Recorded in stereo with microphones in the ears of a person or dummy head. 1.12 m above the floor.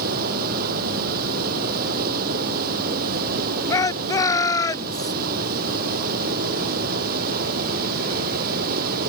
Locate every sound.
0.0 s running water: 50° right (ahead or behind)
3.7 s a shout: 20° left (ahead or behind)